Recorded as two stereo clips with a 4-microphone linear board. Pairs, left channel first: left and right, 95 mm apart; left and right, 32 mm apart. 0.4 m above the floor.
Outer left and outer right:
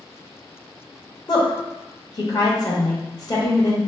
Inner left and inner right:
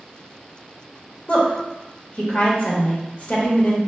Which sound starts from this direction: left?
A woman speaking, at 1.3 s.